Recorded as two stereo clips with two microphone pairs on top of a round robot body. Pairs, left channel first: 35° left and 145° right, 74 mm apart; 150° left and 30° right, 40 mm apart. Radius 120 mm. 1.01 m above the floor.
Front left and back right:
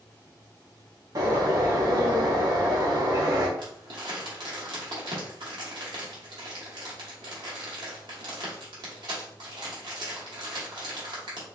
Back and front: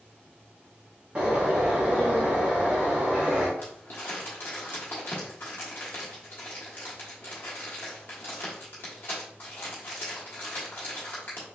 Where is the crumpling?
165° right, 1.1 m.